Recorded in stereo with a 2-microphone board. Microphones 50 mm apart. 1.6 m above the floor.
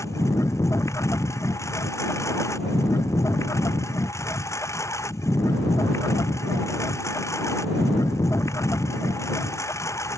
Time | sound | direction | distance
0.0 | a lawn mower | 85° left | ?